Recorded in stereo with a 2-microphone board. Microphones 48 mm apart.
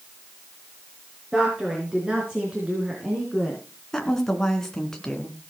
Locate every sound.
1.3 s a woman speaking: 15° right (ahead or behind), 4.5 m; by 3.6 s 20° right (ahead or behind), 3 m
3.9 s a woman speaking: 10° left (ahead or behind), 2.5 m